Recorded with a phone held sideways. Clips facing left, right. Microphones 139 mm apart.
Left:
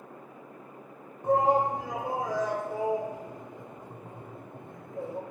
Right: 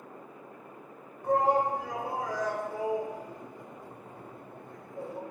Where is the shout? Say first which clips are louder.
Left 2 dB; 20° left (ahead or behind), 0.6 m.